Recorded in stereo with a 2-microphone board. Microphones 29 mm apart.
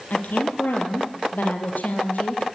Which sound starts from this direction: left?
A woman speaking, at 0.1 s.